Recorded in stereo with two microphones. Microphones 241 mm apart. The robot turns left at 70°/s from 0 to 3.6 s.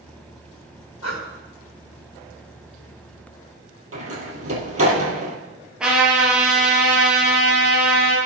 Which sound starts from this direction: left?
Breathing, at 1.0 s.